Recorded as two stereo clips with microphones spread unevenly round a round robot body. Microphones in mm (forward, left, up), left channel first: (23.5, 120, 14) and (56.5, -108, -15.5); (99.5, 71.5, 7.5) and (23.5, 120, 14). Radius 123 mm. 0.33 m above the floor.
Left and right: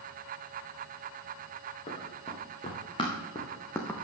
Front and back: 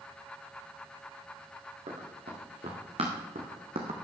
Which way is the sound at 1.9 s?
165° left.